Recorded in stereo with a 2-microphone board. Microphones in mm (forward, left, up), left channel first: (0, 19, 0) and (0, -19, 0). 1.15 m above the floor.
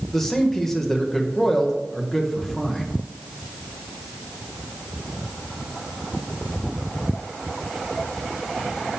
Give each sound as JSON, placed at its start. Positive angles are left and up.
{"t": 0.1, "sound": "a man speaking", "side_deg": 10, "distance_m": 0.9}